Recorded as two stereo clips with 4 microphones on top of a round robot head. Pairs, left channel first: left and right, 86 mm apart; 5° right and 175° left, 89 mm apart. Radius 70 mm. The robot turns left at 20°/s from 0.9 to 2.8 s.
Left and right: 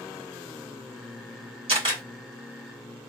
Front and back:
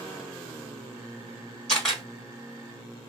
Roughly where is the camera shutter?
Right.